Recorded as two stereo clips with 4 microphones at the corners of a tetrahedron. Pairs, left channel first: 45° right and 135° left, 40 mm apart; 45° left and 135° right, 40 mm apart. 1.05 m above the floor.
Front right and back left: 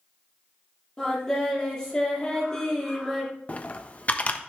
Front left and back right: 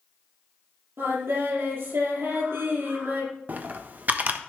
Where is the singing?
125° right, 7.5 m.